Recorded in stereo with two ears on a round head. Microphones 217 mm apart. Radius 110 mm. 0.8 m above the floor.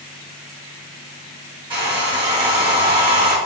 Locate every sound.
1.7 s a hair dryer: 20° right (ahead or behind), 1.3 m